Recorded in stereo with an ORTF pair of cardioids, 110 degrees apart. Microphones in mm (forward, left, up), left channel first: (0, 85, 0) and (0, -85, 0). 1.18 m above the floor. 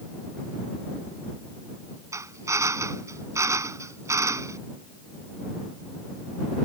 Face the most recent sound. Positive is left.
turn(degrees=-15)